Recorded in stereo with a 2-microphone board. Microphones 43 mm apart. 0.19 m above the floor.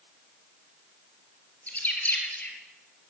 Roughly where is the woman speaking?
I don't hear a woman speaking.